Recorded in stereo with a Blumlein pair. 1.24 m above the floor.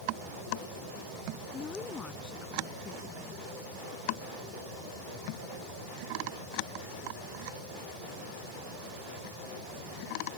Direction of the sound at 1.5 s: 20° left.